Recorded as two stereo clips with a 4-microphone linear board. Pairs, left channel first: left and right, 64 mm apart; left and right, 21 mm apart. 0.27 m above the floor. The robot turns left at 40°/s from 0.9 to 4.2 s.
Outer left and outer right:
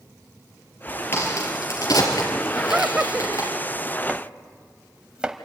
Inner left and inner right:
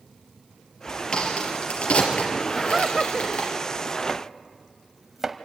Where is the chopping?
10° right (ahead or behind), 1.1 m; by 5.3 s 15° right (ahead or behind), 1.1 m.